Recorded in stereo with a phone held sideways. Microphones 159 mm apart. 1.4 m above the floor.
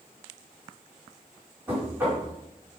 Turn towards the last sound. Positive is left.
turn(degrees=-15)  # may be behind; listen again after turning